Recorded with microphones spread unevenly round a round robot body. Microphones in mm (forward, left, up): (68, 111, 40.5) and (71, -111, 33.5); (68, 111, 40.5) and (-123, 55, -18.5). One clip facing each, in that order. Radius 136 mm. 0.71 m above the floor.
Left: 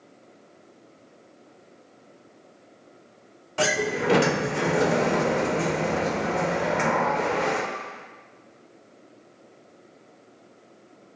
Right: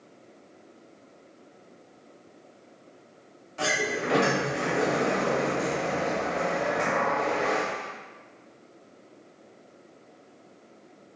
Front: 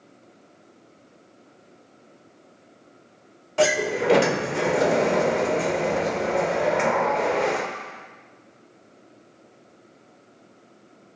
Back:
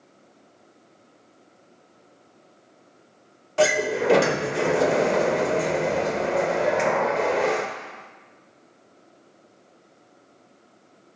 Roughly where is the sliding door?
Left.